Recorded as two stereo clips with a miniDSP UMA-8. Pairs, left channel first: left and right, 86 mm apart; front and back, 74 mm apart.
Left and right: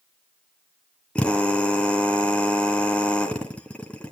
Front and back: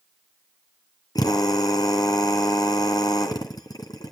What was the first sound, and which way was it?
A drill, 15° left.